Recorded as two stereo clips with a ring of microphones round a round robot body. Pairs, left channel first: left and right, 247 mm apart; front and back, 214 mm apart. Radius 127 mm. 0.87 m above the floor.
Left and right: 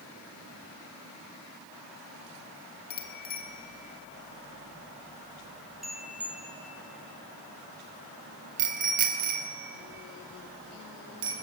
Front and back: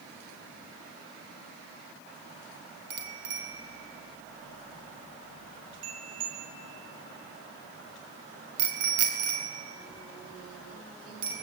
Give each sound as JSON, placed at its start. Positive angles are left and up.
{"t": 2.9, "sound": "a bicycle bell", "azimuth_deg": 145, "distance_m": 3.0}